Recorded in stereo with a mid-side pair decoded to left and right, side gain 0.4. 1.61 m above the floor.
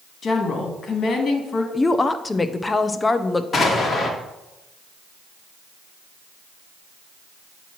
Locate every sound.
0.2 s a woman speaking: 55° left, 1.8 m
1.7 s a woman speaking: 25° left, 0.7 m
3.5 s an explosion: 45° left, 1.5 m